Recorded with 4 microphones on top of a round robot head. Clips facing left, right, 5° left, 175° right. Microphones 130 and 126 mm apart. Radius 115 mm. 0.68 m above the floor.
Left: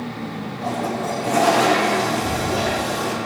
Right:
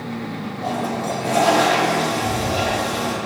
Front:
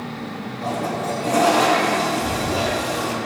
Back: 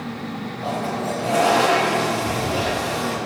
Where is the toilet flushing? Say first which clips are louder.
Even, front 1 dB; 55° left, 3.5 m.